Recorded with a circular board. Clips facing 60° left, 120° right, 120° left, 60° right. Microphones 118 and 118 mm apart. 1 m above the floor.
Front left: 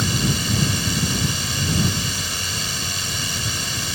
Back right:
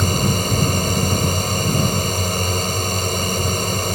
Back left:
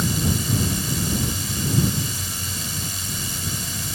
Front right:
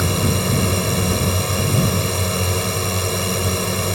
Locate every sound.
0.0 s a drone: 80° right